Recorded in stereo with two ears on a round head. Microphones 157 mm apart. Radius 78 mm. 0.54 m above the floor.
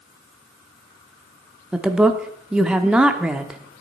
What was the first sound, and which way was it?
A woman speaking, 5° right (ahead or behind).